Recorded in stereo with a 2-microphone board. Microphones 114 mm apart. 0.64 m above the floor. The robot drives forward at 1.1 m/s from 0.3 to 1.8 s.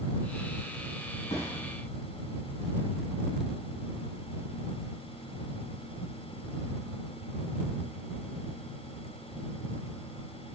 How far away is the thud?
About 2.5 m.